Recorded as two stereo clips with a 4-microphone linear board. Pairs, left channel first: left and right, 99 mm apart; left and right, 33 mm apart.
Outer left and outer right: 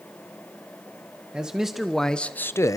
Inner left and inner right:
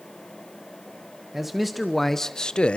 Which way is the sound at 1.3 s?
5° right (ahead or behind).